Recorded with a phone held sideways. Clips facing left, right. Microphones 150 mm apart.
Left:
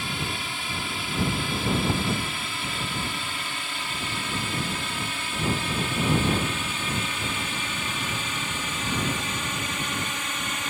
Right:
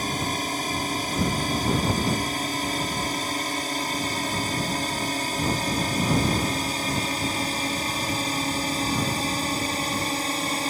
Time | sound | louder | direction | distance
0.0 | a drone | right 5 dB | 40° right (ahead or behind) | ?